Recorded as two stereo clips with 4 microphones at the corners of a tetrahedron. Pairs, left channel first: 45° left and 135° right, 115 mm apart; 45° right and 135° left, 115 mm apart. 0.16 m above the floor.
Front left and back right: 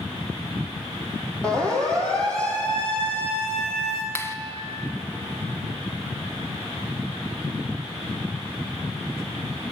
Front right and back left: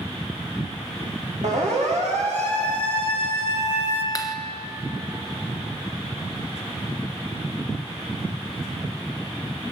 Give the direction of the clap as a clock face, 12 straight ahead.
12 o'clock.